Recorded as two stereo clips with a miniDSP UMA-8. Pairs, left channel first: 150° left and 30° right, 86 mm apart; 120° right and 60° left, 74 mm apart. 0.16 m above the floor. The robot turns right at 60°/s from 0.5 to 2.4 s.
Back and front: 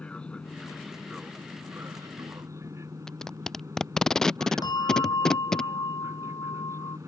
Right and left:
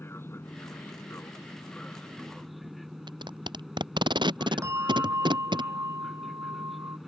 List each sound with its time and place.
0.0 s an aircraft: 140° right; by 7.1 s 30° right
3.1 s tape being pulled: 65° left
4.6 s a bell: 110° left